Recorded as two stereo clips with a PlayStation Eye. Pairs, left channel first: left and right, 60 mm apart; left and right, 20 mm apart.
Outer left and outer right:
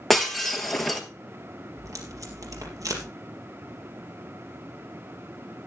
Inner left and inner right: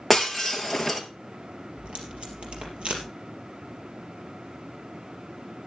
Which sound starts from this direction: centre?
Breaking glass, at 0.1 s.